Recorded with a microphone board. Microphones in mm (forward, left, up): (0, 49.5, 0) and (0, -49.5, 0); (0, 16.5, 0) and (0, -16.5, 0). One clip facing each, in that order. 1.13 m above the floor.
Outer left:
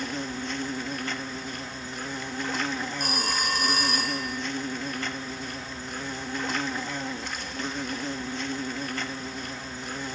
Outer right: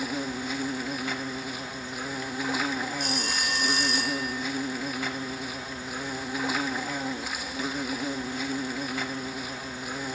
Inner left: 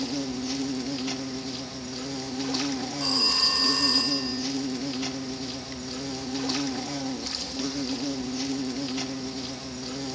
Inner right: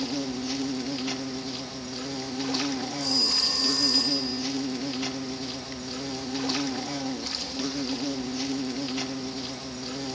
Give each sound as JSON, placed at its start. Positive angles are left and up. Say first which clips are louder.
{"t": 0.0, "sound": "an insect", "louder": "outer right 1 dB, even", "side_deg": -5, "distance_m": 0.9}
{"t": 3.0, "sound": "a phone ringing", "louder": "outer left 1 dB, inner left 2 dB", "side_deg": 50, "distance_m": 2.5}